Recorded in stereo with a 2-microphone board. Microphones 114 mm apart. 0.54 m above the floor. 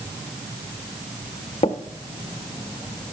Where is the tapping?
65° left (ahead or behind), 0.9 m.